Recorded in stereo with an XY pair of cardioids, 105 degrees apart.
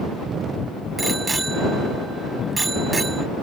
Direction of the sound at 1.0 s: 25° right.